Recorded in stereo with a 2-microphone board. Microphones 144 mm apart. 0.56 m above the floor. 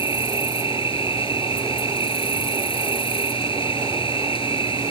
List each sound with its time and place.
0.0 s an insect: 40° left (ahead or behind)